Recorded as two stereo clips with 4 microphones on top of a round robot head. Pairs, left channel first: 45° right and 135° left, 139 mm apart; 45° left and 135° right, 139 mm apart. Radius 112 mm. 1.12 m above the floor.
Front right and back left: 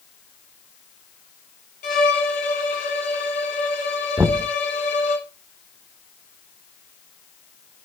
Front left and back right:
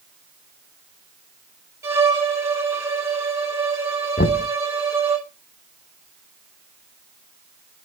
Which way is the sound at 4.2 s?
55° left.